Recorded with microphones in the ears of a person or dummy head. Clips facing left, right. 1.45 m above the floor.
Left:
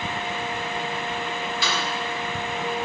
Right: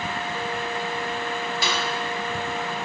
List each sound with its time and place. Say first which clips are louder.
1.6 s a snare drum: right 1 dB; 40° right (ahead or behind), 2.5 m